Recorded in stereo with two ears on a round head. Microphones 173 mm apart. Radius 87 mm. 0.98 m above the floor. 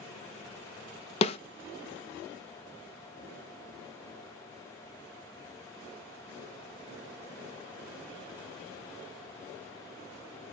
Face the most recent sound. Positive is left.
turn(degrees=30)  # may be behind; listen again after turning